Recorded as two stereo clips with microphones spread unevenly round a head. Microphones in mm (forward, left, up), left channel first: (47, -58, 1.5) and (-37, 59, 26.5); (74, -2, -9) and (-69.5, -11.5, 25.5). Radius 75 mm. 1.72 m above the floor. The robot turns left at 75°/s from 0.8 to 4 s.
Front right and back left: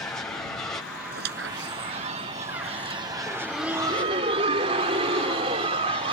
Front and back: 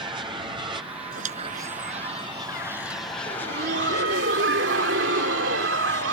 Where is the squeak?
155° left; by 3.0 s 15° left.